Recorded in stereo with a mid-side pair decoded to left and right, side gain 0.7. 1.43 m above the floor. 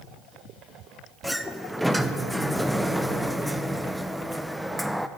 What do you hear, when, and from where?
1.2 s a sliding door: 5° right, 0.6 m